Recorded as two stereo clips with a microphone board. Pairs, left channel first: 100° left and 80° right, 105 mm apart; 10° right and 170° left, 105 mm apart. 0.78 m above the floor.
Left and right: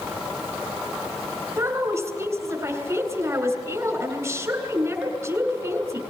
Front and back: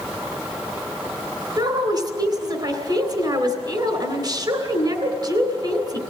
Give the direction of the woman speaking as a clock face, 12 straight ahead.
5 o'clock.